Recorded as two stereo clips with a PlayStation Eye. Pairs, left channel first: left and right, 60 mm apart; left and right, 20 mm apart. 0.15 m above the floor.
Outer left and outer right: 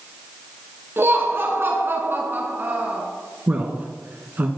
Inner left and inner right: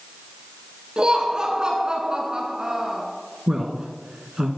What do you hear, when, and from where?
1.0 s laughter: 40° right (ahead or behind), 1.7 m; by 3.0 s 30° right (ahead or behind), 1.7 m
3.5 s a man speaking: 30° right (ahead or behind), 1.5 m